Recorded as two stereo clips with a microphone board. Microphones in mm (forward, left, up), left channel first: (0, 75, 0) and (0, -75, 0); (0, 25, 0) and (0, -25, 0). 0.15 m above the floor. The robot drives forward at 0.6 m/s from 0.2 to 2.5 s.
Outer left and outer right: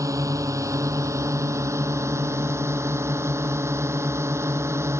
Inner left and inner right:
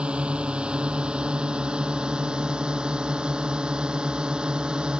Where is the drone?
20° right (ahead or behind); by 5.0 s 15° right (ahead or behind).